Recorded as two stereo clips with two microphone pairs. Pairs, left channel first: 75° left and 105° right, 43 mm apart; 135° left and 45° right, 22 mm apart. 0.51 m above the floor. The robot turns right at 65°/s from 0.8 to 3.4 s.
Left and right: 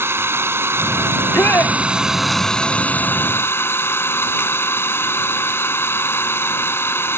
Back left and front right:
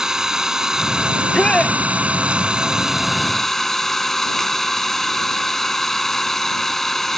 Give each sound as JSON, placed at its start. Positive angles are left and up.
{"t": 0.0, "sound": "an engine running", "azimuth_deg": -110}
{"t": 1.1, "sound": "a shout", "azimuth_deg": 60}